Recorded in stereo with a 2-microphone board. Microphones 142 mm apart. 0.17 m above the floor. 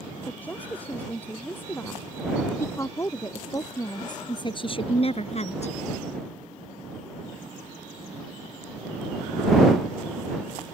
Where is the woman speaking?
10° left (ahead or behind); by 5.7 s 55° left (ahead or behind).